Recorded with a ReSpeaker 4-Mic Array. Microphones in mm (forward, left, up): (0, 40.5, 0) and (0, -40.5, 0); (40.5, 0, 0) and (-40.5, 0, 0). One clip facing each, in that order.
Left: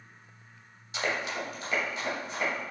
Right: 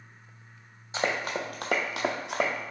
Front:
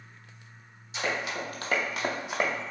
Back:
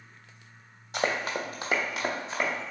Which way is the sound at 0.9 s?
150° right.